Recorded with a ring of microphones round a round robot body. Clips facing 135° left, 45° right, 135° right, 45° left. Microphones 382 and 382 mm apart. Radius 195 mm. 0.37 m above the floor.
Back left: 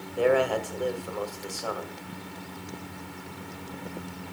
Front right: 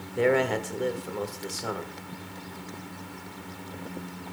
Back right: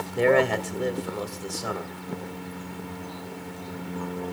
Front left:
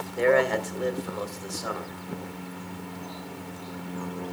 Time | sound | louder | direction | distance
0.2 | a man speaking | even, back right 1 dB | 95° right | 2 m